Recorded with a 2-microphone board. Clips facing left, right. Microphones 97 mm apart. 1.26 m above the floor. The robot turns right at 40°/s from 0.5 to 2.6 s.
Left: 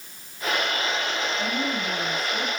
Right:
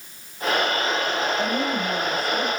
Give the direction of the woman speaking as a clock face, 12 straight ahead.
3 o'clock.